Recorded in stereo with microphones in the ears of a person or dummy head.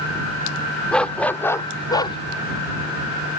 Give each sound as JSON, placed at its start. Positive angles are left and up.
{"t": 0.9, "sound": "a dog barking", "side_deg": 5}